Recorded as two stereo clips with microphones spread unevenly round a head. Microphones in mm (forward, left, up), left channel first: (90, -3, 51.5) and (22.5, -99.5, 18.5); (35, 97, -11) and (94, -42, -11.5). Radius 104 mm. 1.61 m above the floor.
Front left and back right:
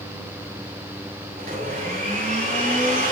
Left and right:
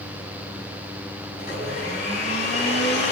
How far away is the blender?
About 7.5 m.